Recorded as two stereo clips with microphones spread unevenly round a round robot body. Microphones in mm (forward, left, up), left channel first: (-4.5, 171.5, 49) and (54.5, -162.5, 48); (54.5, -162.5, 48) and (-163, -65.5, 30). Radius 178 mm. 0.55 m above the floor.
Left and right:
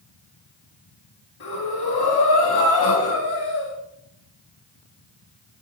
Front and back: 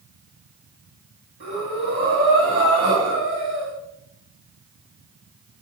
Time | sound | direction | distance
1.4 | breathing | 105° left | 5.5 m